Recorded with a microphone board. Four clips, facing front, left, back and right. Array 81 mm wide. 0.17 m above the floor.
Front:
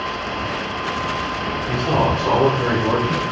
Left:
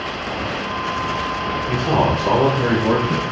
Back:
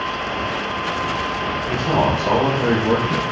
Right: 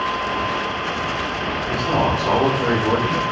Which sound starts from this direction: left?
A man speaking, at 1.7 s.